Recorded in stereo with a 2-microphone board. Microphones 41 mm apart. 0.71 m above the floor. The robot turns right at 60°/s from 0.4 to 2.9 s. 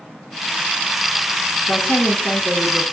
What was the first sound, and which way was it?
A woman speaking, 105° left.